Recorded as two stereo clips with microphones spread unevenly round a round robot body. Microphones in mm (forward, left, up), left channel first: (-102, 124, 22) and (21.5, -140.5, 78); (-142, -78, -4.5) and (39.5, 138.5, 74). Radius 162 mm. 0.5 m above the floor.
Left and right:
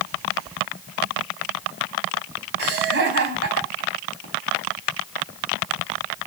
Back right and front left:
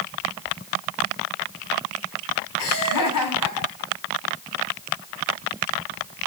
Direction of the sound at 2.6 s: 105° right.